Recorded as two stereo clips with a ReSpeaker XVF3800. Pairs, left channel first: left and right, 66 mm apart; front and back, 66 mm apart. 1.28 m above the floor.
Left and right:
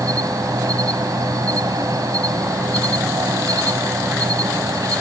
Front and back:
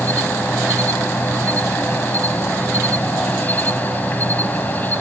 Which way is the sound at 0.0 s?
65° right.